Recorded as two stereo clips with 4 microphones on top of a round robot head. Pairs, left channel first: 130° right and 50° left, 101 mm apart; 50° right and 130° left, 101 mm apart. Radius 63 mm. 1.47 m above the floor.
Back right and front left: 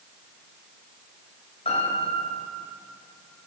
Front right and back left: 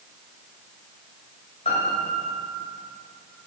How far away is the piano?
About 3 m.